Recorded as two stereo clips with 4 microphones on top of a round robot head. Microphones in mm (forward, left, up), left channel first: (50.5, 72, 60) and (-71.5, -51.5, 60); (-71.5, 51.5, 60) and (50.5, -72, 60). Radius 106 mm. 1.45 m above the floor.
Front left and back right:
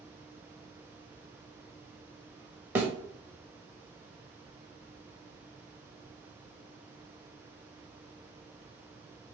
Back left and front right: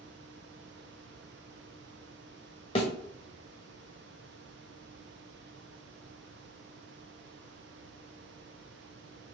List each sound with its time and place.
2.8 s a thud: 155° left, 0.8 m